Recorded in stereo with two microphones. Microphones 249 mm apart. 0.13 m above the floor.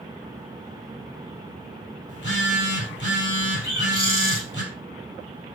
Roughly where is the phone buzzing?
Left.